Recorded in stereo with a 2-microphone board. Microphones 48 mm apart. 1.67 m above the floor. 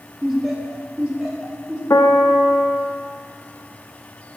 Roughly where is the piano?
Left.